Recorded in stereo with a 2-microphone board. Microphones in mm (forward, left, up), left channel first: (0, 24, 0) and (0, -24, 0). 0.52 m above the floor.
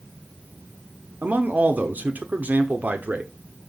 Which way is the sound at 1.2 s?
35° right (ahead or behind).